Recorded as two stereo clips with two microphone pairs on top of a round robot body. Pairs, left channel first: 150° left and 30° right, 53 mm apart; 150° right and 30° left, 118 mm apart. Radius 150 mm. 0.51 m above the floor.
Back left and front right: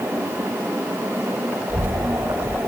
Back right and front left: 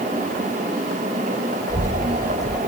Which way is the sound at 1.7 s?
85° right.